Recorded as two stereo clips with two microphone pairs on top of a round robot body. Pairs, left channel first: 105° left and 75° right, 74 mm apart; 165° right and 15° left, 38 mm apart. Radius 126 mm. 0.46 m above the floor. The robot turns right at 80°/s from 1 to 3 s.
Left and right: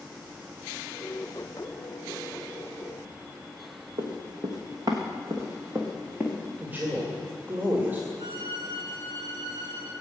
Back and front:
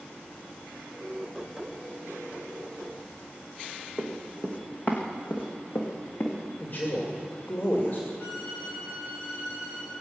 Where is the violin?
115° right, 4.5 m.